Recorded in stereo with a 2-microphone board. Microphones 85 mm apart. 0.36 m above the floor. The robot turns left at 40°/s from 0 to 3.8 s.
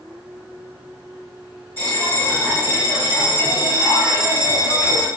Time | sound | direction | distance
1.8 | a bell | 135° left | 1.7 m